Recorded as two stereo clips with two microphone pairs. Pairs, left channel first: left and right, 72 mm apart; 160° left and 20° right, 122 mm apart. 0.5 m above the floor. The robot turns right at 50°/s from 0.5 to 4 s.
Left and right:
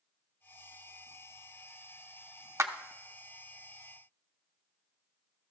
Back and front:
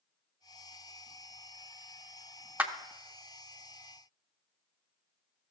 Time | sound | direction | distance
2.6 | a clap | 95° right | 0.6 m